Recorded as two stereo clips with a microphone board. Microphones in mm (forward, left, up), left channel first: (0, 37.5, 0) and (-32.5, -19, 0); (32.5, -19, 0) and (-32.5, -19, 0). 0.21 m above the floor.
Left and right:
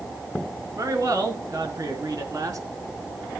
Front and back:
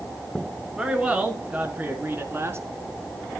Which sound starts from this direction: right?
A man speaking, at 0.8 s.